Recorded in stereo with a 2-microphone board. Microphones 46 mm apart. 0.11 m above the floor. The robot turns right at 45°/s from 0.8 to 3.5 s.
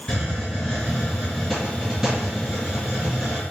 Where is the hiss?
10° left (ahead or behind), 1.8 m; by 3.4 s 25° right (ahead or behind), 1.8 m.